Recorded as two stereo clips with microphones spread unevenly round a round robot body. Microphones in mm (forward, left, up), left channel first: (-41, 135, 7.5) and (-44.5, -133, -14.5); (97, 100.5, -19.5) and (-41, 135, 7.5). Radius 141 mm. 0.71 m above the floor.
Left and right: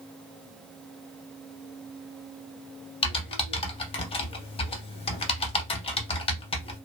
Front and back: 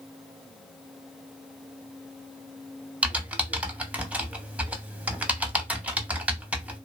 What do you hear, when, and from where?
3.0 s typing on a keyboard: 120° left, 0.6 m